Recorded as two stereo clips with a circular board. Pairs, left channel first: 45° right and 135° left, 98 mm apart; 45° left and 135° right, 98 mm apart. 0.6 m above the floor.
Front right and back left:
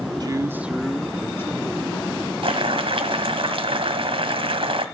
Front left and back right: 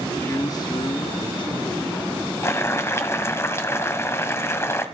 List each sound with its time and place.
0.2 s a man speaking: 105° left, 1.0 m; by 2.3 s 5° left, 2.5 m
2.4 s boiling: 110° left, 1.5 m